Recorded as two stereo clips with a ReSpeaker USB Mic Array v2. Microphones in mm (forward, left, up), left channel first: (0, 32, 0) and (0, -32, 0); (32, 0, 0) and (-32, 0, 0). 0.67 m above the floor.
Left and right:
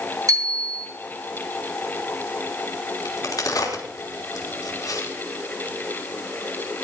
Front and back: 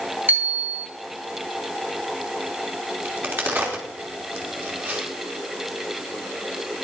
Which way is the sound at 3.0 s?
120° left.